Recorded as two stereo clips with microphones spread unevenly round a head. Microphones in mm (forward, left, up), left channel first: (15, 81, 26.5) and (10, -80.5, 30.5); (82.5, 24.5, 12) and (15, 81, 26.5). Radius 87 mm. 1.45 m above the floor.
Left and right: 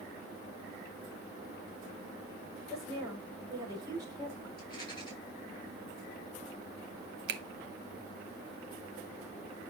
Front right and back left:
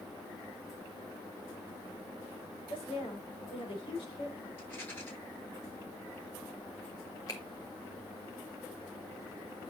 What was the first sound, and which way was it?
A woman speaking, 25° right.